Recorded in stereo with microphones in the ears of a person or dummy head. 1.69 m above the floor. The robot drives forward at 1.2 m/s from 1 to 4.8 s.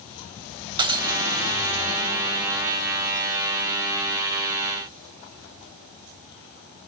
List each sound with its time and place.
0.8 s breaking glass: 20° right (ahead or behind), 2.5 m